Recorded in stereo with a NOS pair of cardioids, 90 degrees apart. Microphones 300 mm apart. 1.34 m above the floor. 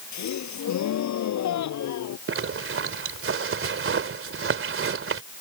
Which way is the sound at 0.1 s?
65° left.